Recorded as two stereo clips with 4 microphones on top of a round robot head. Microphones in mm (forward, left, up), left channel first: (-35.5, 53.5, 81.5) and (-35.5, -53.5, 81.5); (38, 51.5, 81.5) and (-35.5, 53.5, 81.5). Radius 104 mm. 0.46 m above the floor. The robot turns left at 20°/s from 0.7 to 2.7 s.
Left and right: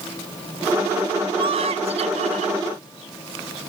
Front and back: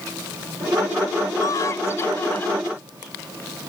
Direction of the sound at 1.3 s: 50° right.